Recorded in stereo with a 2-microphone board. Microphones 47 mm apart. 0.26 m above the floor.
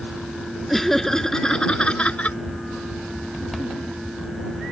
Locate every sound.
0.7 s laughter: 5° left (ahead or behind); by 2.4 s 30° left (ahead or behind)